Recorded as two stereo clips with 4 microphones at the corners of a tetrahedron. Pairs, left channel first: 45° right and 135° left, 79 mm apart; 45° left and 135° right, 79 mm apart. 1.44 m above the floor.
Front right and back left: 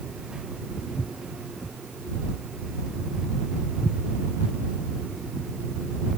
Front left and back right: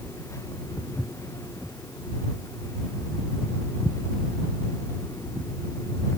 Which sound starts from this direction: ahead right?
Footsteps, at 0.8 s.